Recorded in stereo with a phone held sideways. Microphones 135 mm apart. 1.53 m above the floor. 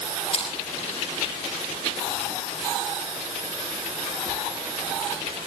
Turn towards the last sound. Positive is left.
turn(degrees=50)  # may be behind; listen again after turning